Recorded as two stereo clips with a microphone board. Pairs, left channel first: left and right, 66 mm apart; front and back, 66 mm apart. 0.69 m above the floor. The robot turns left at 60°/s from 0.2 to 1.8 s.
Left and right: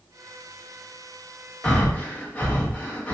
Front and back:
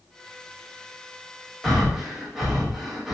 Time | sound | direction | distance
1.6 | breathing | 110° left | 0.7 m